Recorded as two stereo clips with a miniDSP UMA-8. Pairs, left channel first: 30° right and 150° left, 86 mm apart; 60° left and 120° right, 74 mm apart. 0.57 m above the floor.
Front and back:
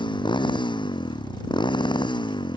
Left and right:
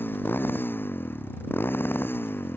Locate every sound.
0.0 s a motorcycle: straight ahead